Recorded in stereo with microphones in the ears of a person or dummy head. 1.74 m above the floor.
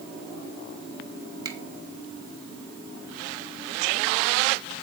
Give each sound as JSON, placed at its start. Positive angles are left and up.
{"t": 1.4, "sound": "a finger snap", "side_deg": -25, "distance_m": 2.5}